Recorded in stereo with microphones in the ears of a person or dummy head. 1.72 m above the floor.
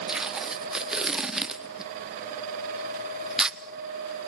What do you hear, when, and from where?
0.1 s tape being pulled: 5° right (ahead or behind), 0.7 m